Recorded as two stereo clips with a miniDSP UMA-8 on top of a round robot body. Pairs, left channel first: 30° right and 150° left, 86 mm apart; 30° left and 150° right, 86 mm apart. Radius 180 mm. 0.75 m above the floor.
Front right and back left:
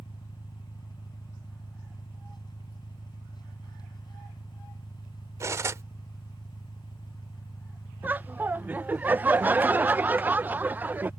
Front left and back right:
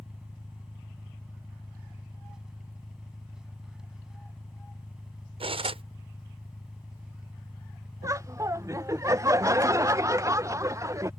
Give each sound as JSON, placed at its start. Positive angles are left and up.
{"t": 0.0, "sound": "an engine running", "azimuth_deg": -70}
{"t": 5.4, "sound": "cutlery clinking", "azimuth_deg": -150}
{"t": 8.0, "sound": "laughter", "azimuth_deg": -155}